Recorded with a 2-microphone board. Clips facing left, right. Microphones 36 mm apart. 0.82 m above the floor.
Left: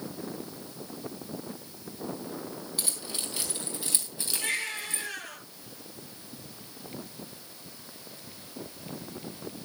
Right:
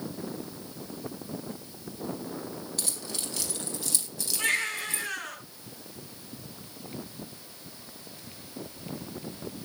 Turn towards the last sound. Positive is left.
turn(degrees=-55)  # may be behind; listen again after turning